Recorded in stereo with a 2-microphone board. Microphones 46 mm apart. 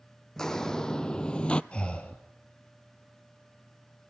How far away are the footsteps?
About 1.0 m.